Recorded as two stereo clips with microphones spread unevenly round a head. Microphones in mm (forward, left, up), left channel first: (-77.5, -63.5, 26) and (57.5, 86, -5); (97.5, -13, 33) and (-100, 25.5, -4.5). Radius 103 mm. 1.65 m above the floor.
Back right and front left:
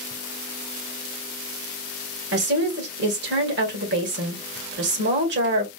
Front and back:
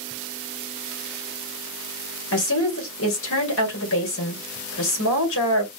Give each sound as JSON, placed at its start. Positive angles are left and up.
{"t": 2.3, "sound": "a woman speaking", "azimuth_deg": 10, "distance_m": 2.0}